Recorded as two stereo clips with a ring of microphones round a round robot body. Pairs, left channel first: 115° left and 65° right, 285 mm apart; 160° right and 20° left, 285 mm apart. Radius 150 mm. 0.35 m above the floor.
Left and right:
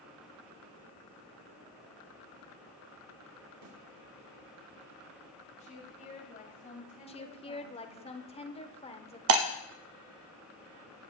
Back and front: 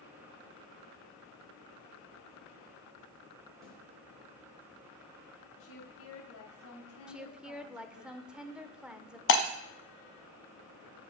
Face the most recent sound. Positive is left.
turn(degrees=-110)